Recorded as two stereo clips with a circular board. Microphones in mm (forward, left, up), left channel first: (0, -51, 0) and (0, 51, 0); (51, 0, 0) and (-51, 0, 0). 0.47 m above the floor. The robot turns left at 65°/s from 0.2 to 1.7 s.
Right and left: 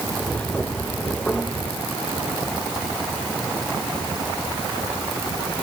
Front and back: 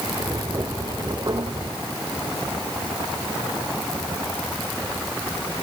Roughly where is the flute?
I don't hear a flute.